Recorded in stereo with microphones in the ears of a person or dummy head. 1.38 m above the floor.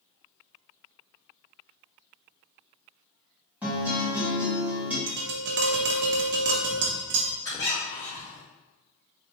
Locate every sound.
3.6 s a guitar: 5° right (ahead or behind), 1.2 m
5.1 s tapping: 50° right (ahead or behind), 0.6 m
7.4 s a squeak: 25° left (ahead or behind), 1.5 m